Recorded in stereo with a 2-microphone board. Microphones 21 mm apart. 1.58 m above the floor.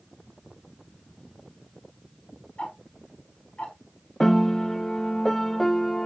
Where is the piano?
20° left (ahead or behind), 0.5 m.